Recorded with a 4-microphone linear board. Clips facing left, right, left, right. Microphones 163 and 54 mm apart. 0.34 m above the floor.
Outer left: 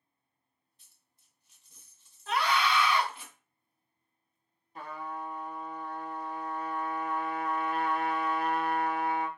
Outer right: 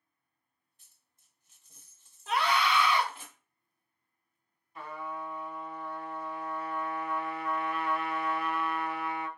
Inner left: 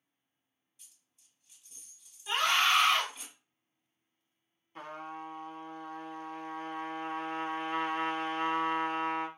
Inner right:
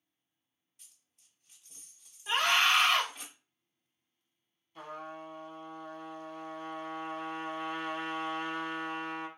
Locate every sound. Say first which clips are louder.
0.8 s a dropped coin: outer left 1 dB, even; 50° right (ahead or behind), 0.8 m
2.3 s a scream: even, inner right 1 dB; 20° right (ahead or behind), 1.0 m
4.8 s a trumpet: even, inner left 1 dB; 35° left (ahead or behind), 0.6 m